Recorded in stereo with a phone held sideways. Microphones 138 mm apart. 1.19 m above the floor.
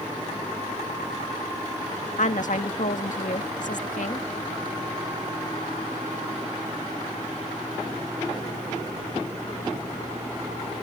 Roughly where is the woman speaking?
Left.